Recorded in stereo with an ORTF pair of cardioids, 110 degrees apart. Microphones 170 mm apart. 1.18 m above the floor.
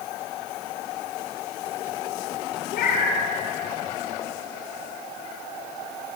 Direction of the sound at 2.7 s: 60° left.